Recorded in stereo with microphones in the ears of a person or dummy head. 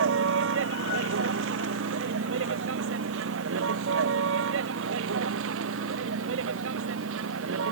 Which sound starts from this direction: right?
A vehicle, at 0.0 s.